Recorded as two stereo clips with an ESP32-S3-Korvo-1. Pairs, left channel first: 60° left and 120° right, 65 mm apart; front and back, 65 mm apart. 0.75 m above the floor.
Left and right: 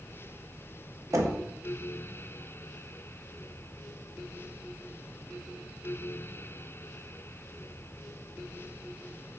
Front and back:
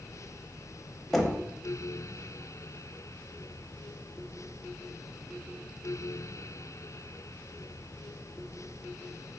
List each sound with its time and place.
1.1 s knocking: 85° right, 0.5 m